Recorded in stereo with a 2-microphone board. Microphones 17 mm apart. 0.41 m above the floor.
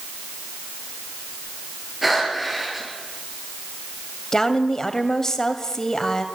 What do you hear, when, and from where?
2.0 s breathing: 10° right (ahead or behind), 6.5 m
4.3 s a woman speaking: 35° left (ahead or behind), 2 m